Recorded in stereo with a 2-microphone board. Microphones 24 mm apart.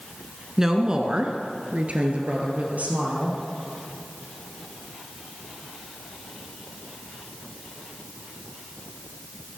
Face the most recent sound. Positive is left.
turn(degrees=-70)  # may be behind; listen again after turning